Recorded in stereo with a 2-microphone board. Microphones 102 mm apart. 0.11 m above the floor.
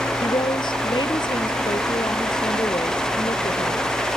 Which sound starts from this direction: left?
A woman speaking, at 0.2 s.